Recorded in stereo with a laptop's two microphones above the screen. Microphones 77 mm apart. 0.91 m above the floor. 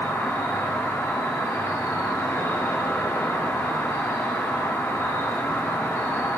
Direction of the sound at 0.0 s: 40° left (ahead or behind).